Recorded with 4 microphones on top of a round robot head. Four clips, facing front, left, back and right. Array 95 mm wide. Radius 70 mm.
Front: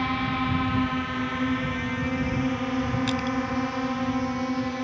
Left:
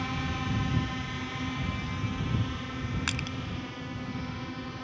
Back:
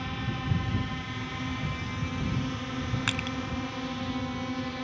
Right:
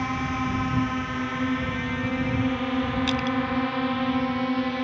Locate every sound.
0.0 s a drone: 35° right; by 4.9 s 70° right
3.1 s crushing: 145° left